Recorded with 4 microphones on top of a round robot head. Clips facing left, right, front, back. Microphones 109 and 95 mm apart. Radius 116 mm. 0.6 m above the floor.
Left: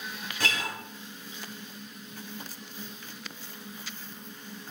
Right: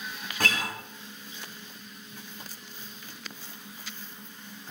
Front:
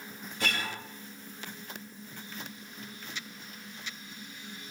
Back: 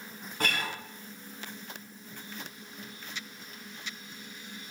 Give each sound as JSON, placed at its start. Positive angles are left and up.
{"t": 0.4, "sound": "a guitar", "azimuth_deg": -130, "distance_m": 3.0}